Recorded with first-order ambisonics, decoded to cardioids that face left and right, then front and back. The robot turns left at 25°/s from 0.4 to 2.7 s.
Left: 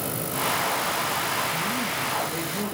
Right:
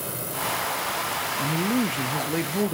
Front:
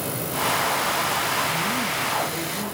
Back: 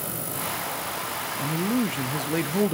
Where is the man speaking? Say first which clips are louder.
Right 1 dB, front 4 dB; 120° right, 0.5 m; by 2.7 s 150° right, 0.5 m.